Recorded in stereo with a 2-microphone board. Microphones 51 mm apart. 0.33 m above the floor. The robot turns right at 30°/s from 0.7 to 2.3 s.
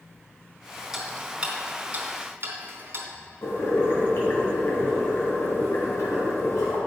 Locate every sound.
0.9 s ticking: 10° right (ahead or behind), 1.3 m; by 3.1 s 50° right (ahead or behind), 1.3 m
3.4 s boiling: 60° left (ahead or behind), 2.5 m